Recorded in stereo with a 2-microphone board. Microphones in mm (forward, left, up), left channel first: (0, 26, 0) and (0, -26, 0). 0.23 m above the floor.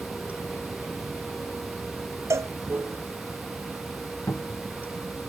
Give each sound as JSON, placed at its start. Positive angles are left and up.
{"t": 0.0, "sound": "running water", "side_deg": -30}
{"t": 2.3, "sound": "a cowbell", "side_deg": -65}
{"t": 4.3, "sound": "a cupboard door", "side_deg": 85}